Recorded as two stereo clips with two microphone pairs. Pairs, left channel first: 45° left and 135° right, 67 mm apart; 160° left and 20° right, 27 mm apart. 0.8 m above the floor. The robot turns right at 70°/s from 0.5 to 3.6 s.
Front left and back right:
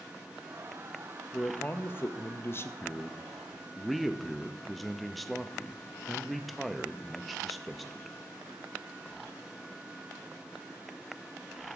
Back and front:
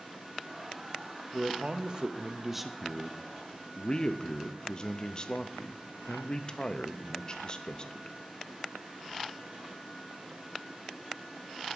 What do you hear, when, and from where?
1.3 s a man speaking: 25° right, 0.6 m; by 8.2 s 135° left, 0.6 m